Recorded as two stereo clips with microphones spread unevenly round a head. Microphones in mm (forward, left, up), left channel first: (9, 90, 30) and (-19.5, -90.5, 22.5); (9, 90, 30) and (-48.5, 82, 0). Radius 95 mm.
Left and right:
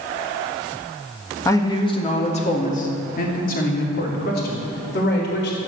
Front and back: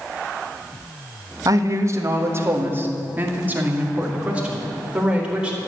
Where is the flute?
No flute in this recording.